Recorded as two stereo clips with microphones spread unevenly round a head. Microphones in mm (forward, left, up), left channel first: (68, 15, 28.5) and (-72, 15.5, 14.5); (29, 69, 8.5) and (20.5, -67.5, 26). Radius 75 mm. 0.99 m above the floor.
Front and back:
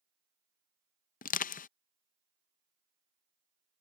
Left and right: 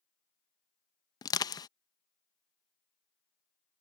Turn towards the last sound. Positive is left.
turn(degrees=30)